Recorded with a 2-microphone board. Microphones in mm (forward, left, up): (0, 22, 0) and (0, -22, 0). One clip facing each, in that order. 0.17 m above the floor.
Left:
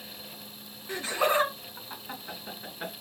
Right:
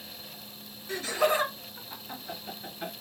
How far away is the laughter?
About 1.6 m.